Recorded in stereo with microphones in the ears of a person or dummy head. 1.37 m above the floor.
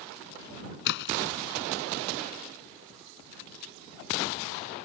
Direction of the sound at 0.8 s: 65° left (ahead or behind).